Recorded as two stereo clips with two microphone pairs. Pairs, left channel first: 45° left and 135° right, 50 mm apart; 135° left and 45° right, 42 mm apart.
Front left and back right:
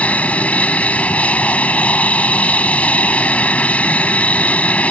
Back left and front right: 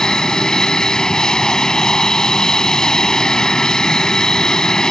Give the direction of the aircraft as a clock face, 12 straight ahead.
10 o'clock.